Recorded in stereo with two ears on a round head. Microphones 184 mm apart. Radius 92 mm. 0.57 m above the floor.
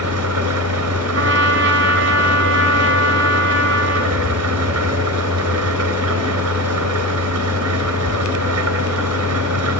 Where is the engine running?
90° right, 4 m.